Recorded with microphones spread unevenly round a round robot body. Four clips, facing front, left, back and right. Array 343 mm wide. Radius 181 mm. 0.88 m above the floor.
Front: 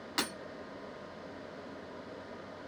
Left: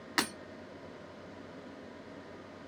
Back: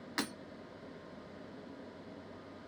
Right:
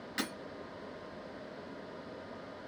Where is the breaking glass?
65° left, 1.4 m.